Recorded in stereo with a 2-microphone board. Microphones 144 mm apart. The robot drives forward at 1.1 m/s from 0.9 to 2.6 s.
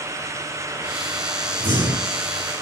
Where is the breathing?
20° right (ahead or behind), 5 m; by 2.2 s 25° right (ahead or behind), 4 m.